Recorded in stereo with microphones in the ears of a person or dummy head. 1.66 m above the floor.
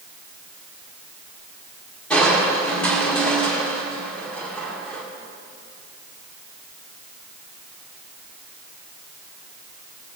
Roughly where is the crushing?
Centre.